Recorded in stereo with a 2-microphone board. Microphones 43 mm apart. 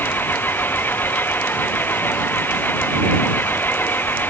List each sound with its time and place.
0.0 s an engine running: 50° left (ahead or behind)